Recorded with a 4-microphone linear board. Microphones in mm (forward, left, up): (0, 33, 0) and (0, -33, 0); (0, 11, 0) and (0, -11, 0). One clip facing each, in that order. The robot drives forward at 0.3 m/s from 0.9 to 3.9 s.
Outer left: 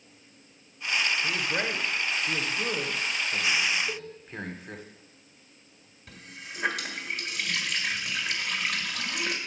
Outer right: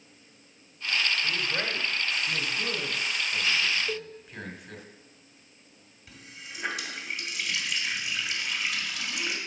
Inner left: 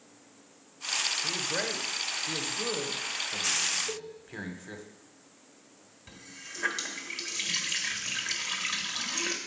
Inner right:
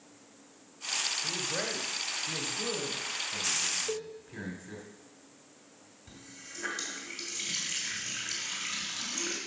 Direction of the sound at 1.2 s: 20° left (ahead or behind).